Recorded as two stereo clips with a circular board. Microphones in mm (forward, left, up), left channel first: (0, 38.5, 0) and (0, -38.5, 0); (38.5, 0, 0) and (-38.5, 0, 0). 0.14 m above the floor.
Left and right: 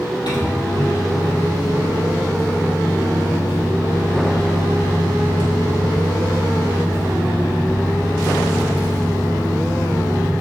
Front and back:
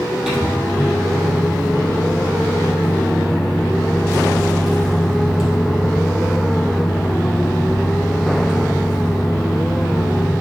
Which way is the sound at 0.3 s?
95° left.